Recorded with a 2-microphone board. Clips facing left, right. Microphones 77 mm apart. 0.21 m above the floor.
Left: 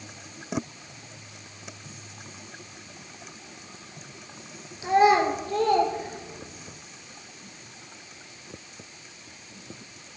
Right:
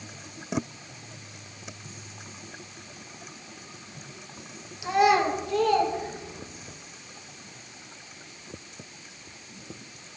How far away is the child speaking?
About 2.5 m.